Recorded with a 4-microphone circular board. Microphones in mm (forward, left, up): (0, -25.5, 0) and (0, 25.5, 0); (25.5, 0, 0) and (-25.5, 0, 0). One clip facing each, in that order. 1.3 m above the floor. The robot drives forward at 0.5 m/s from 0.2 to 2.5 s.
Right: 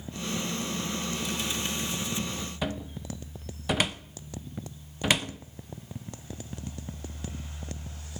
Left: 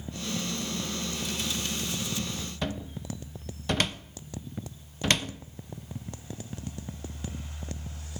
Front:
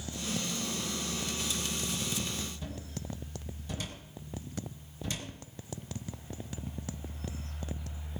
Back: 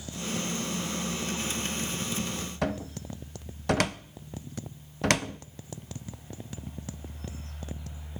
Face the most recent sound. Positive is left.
turn(degrees=-170)